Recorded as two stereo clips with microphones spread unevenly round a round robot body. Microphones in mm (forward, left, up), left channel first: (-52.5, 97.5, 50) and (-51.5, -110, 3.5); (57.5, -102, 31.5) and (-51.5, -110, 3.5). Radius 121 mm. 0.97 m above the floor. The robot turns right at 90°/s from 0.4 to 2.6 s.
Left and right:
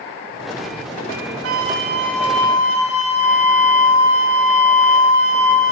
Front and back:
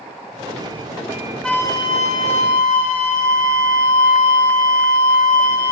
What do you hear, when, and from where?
1.4 s a flute: 80° right, 1.1 m; by 5.7 s 25° left, 1.1 m